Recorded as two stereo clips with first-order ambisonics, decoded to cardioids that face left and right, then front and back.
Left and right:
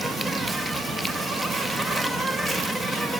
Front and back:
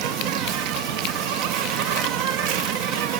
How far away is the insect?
About 0.8 m.